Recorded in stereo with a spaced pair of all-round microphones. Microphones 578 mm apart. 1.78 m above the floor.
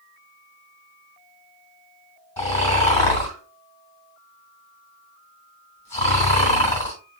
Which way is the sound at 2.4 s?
65° left (ahead or behind).